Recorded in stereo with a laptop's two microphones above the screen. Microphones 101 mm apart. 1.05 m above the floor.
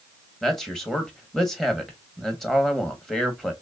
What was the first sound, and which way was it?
A man speaking, 5° left (ahead or behind).